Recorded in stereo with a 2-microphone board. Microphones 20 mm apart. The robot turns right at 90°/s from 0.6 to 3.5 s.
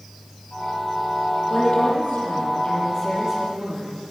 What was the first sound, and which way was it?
A woman speaking, 30° left.